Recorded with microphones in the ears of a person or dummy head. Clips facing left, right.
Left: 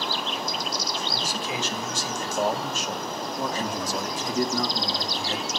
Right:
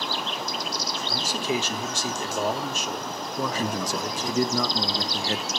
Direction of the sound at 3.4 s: 60° right (ahead or behind).